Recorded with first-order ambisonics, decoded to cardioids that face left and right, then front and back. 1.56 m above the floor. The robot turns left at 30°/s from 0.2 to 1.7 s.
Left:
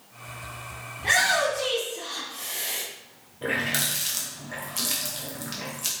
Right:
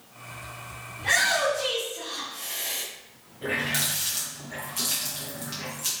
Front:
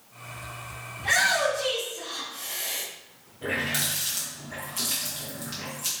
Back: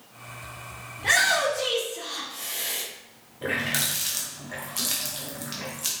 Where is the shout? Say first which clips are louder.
Left 1 dB, back 1 dB; 175° left, 1.7 m; by 2.8 s 155° left, 1.7 m.